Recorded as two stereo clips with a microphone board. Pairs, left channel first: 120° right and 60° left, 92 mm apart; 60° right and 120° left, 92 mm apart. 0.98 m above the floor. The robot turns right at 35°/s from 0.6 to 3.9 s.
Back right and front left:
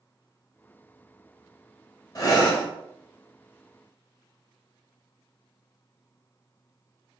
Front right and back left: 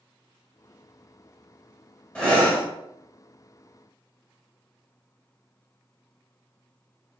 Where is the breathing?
130° right, 0.9 m; by 2.6 s 115° right, 0.9 m.